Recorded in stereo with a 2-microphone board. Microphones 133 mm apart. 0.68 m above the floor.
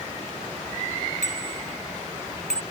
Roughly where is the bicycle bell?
Right.